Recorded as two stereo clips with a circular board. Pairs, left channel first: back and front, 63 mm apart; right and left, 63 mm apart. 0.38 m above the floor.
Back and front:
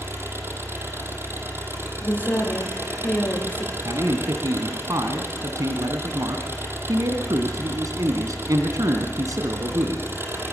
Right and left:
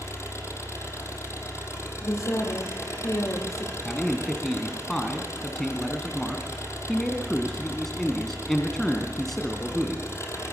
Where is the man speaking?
5° right, 3 m.